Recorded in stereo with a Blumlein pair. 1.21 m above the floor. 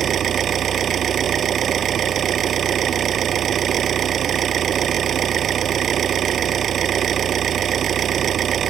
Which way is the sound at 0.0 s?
25° right.